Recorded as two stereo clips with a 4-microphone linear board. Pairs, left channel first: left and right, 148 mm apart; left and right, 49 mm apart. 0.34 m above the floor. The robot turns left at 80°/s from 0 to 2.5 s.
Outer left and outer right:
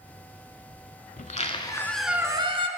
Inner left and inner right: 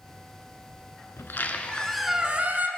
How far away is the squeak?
About 0.6 m.